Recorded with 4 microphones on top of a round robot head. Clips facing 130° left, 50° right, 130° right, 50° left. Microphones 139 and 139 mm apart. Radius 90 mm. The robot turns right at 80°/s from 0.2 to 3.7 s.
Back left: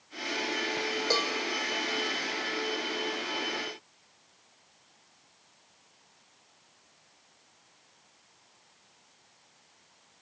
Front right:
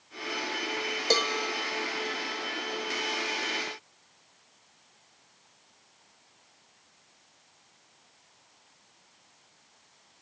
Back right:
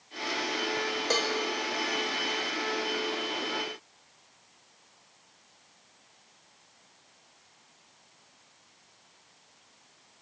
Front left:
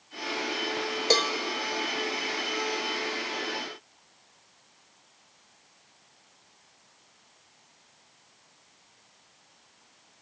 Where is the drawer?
No drawer in this recording.